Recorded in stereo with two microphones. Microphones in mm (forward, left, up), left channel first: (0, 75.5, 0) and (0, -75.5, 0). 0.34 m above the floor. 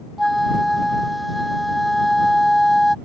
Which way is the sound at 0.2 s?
Centre (ahead or behind).